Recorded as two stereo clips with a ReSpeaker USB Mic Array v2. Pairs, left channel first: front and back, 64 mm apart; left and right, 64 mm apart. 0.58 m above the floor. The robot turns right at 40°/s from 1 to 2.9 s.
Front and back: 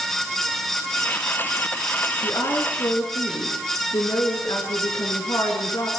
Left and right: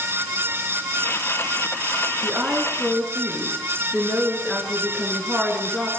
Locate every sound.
2.2 s a woman speaking: 20° right, 6.5 m; by 5.9 s 10° left, 6.5 m